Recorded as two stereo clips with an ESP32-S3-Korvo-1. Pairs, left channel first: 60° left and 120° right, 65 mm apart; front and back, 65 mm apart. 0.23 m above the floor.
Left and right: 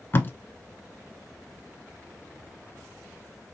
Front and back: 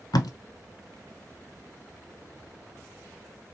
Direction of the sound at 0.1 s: 5° left.